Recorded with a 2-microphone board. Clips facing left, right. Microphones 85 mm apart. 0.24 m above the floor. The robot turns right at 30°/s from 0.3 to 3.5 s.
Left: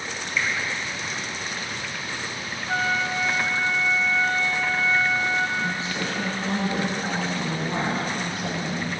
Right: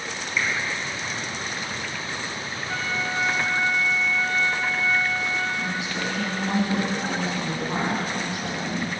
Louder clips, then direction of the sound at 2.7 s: Left 5 dB; 35° left (ahead or behind).